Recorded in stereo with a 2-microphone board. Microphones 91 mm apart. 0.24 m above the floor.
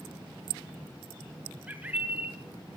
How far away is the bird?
About 2 m.